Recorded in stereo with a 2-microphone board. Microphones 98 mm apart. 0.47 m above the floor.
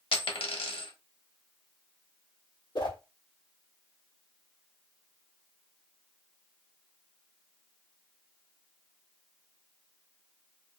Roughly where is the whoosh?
Left.